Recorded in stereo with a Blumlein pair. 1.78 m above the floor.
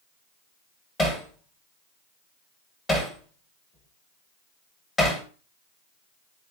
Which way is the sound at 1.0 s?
15° left.